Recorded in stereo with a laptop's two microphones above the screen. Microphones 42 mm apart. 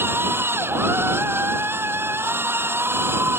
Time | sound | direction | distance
0.0 | a machine running | 65° right (ahead or behind) | ?